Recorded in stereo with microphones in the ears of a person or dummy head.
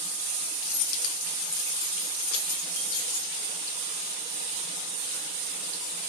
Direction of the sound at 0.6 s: 65° left (ahead or behind).